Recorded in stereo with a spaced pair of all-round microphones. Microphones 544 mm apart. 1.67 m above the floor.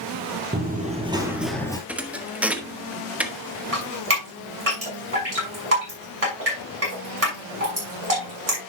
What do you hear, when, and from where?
0.5 s running footsteps: 15° right (ahead or behind), 2.5 m; by 1.8 s 5° left (ahead or behind), 2.0 m
1.9 s a thud: 5° right (ahead or behind), 1.0 m
3.7 s dripping: 80° right, 5.5 m